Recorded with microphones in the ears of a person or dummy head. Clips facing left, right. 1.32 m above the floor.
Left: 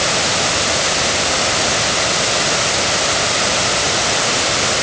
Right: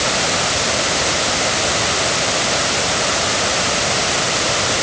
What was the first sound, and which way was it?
Only background noise.